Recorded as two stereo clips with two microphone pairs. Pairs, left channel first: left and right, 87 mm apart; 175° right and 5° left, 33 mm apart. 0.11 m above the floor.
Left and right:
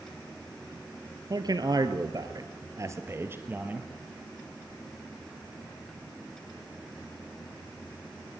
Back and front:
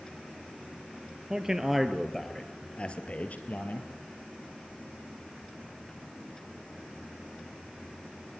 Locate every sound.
1.3 s a man speaking: 65° right, 2.5 m; by 3.9 s 160° right, 3 m